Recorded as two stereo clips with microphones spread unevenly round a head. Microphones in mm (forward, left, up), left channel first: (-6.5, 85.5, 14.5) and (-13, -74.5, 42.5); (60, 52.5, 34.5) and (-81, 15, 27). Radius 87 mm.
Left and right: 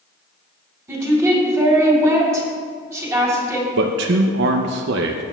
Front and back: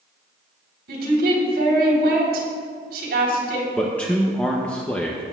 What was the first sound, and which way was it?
A woman speaking, 170° right.